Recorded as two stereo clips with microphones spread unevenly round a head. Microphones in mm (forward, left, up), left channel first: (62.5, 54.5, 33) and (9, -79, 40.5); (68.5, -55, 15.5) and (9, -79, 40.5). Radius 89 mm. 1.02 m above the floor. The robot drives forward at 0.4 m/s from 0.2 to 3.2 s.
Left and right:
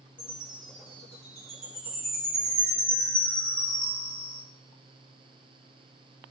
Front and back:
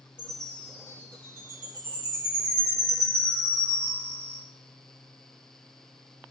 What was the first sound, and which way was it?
A chime, 145° left.